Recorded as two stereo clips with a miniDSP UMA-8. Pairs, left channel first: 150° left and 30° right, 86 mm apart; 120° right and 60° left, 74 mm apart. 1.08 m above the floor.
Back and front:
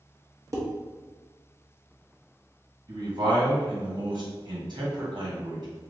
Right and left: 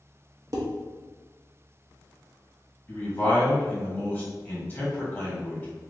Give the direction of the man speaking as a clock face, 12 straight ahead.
2 o'clock.